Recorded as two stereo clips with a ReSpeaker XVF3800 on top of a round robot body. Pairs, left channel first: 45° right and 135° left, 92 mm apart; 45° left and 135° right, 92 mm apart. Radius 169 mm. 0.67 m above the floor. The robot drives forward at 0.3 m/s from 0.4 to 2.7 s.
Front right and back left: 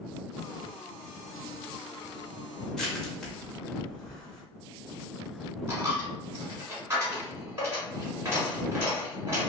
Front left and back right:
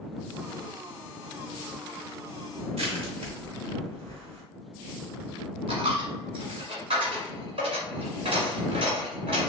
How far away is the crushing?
About 0.8 m.